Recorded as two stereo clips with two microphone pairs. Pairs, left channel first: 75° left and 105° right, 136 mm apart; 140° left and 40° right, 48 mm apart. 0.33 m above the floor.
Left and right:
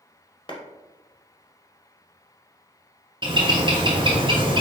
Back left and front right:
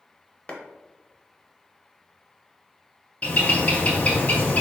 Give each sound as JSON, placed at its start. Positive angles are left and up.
{"t": 0.5, "sound": "a clap", "azimuth_deg": 90, "distance_m": 0.8}
{"t": 3.2, "sound": "a bird", "azimuth_deg": -160, "distance_m": 0.9}